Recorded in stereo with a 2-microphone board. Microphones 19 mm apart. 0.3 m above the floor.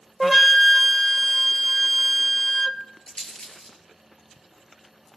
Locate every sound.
0.2 s a flute: 5° left (ahead or behind), 0.5 m
3.1 s a rattle: 65° left (ahead or behind), 3 m